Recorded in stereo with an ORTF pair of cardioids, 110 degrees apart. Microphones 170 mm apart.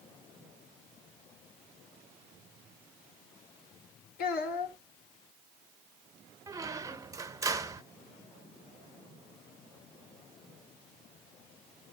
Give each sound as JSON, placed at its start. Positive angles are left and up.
{"t": 4.2, "sound": "a child speaking", "azimuth_deg": 70, "distance_m": 2.0}
{"t": 6.5, "sound": "a squeak", "azimuth_deg": -20, "distance_m": 0.7}